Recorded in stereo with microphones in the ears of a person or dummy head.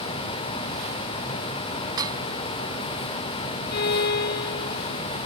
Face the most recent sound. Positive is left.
turn(degrees=55)  # may be behind; listen again after turning